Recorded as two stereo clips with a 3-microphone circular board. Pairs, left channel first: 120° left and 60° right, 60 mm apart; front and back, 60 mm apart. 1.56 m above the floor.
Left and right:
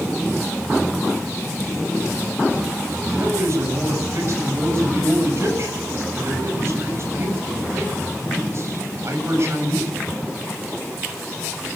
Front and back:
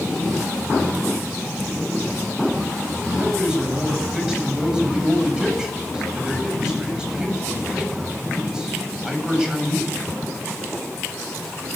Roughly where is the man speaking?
Right.